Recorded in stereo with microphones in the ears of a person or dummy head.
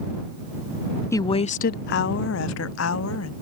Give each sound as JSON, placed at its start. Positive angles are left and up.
{"t": 1.1, "sound": "a woman speaking", "side_deg": 15}